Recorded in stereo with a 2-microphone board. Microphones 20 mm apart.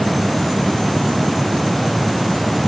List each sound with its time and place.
Only background noise.